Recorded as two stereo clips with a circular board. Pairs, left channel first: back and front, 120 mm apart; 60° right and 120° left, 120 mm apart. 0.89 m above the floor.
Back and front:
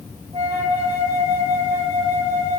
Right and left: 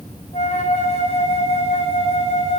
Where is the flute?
35° right, 2 m.